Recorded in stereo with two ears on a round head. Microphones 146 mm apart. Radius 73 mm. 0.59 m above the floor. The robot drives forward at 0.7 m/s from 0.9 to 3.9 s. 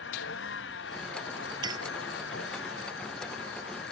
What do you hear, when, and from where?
0.0 s a vehicle: 85° left; by 3.9 s 80° left
1.6 s a clink: 25° right (ahead or behind)